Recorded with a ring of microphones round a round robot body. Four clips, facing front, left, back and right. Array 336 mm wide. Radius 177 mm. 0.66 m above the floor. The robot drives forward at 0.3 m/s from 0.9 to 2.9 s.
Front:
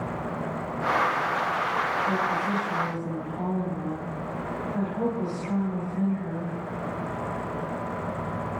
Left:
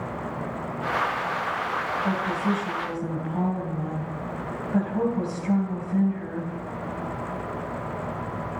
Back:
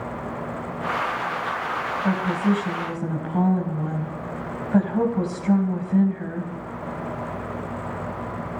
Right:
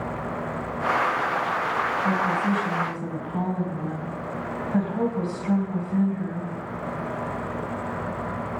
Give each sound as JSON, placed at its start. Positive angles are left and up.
{"t": 2.0, "sound": "a woman speaking", "azimuth_deg": -175, "distance_m": 3.5}